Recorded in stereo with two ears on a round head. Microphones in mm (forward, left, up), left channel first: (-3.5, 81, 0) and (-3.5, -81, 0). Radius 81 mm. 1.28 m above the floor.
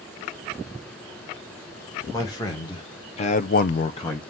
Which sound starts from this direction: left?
A man speaking, at 2.1 s.